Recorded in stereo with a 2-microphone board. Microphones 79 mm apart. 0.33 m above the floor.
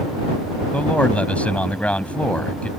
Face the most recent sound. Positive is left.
turn(degrees=15)  # may be behind; listen again after turning